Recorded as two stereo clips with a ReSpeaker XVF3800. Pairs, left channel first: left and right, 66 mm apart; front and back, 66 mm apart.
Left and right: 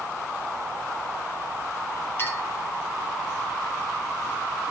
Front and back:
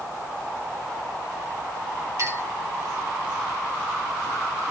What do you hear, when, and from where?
2.2 s a clink: 140° left, 2.5 m